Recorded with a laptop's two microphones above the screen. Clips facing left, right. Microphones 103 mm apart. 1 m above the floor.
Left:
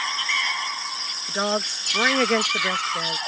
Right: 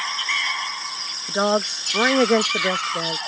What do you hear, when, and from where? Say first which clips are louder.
1.3 s a woman speaking: right 5 dB; 20° right (ahead or behind)